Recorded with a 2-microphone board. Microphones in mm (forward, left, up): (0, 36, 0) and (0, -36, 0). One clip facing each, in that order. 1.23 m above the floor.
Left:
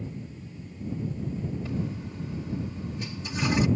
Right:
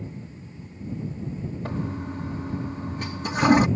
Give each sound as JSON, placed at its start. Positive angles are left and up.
{"t": 1.6, "sound": "a toilet flushing", "side_deg": -55}